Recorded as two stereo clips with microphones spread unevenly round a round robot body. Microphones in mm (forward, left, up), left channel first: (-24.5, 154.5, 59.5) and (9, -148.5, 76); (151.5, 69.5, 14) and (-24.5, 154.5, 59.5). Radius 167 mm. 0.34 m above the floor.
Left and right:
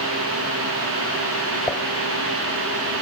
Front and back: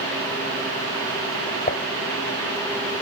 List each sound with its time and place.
1.7 s dishes clattering: 15° left